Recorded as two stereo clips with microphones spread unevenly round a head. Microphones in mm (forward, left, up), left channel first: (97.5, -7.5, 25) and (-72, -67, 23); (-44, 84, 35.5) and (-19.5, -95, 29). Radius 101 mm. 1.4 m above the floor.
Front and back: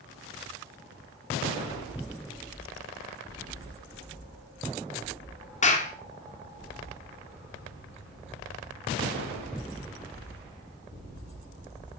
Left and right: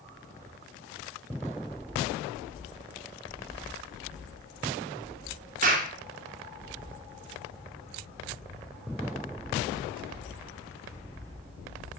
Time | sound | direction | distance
5.6 | a clap | 30° right | 2.5 m